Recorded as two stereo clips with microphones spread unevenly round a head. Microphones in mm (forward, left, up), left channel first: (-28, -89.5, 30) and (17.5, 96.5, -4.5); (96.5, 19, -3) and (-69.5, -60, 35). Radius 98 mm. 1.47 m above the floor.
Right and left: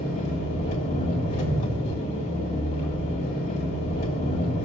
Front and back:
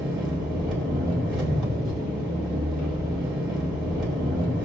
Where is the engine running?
65° right, 2.5 m.